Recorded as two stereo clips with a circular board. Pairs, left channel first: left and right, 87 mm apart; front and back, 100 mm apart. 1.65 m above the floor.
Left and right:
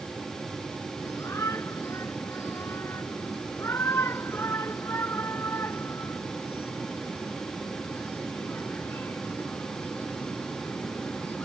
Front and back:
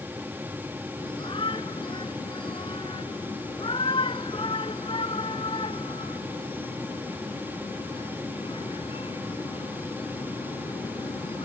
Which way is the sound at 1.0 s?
35° left.